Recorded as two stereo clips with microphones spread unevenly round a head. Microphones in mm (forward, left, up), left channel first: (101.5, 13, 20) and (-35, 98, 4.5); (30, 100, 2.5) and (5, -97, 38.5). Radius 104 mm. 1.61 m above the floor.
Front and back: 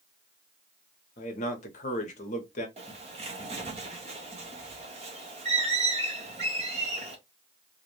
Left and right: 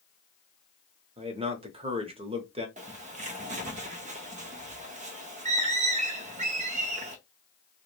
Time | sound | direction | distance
1.2 | a man speaking | 55° right | 0.7 m
2.8 | a bird | 155° right | 0.6 m